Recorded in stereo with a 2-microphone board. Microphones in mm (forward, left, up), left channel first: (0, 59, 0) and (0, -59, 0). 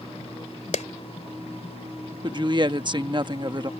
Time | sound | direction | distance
0.7 | a clap | 85° left | ?
2.2 | a woman speaking | 40° right (ahead or behind) | ?